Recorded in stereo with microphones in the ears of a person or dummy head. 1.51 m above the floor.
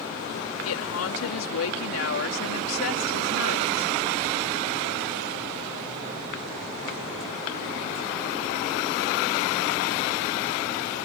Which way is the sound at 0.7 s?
80° left.